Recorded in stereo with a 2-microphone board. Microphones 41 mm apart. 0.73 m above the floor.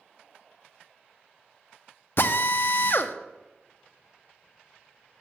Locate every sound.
2.2 s a drill: 60° left (ahead or behind), 0.6 m